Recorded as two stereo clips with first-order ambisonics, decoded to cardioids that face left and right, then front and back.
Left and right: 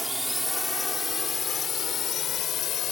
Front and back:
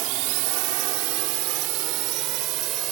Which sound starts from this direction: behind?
A drone, at 0.0 s.